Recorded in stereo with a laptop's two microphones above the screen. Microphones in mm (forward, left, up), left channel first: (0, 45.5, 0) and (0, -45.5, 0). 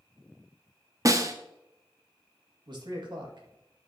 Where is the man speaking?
55° right (ahead or behind), 1.8 m.